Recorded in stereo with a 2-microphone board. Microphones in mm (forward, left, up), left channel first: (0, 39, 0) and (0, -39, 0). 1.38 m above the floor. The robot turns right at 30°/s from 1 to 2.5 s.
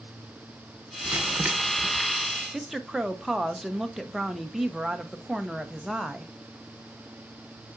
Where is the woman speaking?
Centre (ahead or behind), 0.9 m.